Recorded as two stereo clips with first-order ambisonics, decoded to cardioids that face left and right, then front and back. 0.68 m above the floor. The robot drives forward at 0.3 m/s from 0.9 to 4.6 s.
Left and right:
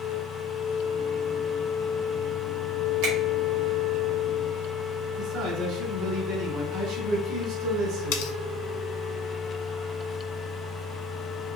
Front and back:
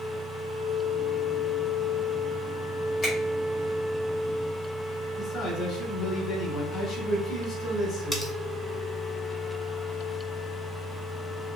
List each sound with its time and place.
3.0 s a finger snap: 85° right, 2.0 m
5.2 s a man speaking: 85° right, 2 m
8.1 s cutlery clinking: 90° left, 0.7 m